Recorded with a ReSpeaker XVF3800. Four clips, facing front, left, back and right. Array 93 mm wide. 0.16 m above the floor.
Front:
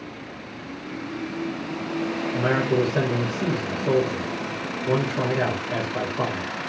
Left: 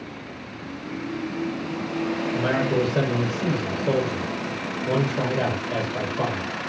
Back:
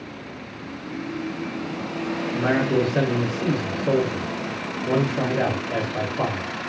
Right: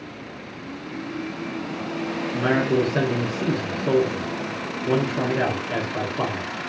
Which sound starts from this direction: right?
A man speaking, at 2.3 s.